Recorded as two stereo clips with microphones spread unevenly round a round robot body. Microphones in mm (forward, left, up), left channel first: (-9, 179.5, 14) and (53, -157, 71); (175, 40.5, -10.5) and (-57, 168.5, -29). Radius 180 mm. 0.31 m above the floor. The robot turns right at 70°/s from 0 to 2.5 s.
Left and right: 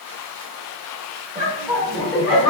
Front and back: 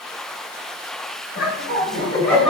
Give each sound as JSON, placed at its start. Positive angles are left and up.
{"t": 1.4, "sound": "laughter", "azimuth_deg": -10, "distance_m": 1.1}